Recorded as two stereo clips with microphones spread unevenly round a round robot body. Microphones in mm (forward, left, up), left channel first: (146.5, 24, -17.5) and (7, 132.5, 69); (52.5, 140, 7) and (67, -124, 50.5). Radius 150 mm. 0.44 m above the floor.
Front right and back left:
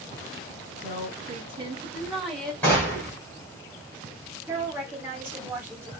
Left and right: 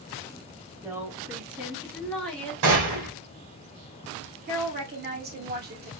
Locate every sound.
0.8 s a woman speaking: 175° right, 1.1 m; by 2.5 s 20° left, 1.4 m
2.6 s a gunshot: 105° right, 1.7 m
4.5 s a woman speaking: 90° right, 1.1 m